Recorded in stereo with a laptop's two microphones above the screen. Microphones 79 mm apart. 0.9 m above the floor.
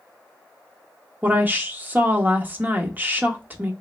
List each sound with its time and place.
1.2 s a woman speaking: 25° right (ahead or behind), 0.9 m